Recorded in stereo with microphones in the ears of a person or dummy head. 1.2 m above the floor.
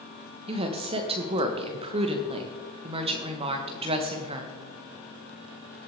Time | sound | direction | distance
0.5 | a woman speaking | 25° right (ahead or behind) | 1.3 m